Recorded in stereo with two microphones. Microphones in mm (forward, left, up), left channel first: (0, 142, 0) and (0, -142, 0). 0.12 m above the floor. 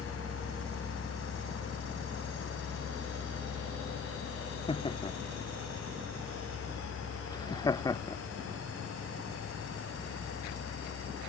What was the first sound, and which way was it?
Laughter, 20° left (ahead or behind).